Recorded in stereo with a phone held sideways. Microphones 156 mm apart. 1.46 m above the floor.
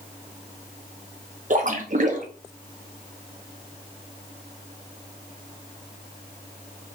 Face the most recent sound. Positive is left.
turn(degrees=-50)  # may be behind; listen again after turning